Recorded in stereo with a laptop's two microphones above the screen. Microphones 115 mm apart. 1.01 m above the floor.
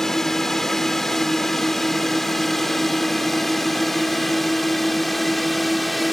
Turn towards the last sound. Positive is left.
turn(degrees=0)  # may be behind; listen again after turning